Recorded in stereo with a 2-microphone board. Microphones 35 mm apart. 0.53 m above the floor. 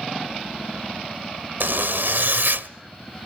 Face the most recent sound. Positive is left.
turn(degrees=-70)  # may be behind; listen again after turning